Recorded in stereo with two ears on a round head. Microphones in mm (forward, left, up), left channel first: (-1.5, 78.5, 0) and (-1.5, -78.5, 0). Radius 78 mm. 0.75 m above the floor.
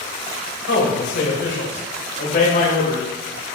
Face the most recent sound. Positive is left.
turn(degrees=40)  # may be behind; listen again after turning